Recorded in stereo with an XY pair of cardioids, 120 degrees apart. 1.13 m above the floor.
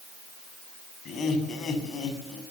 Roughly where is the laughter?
Ahead left.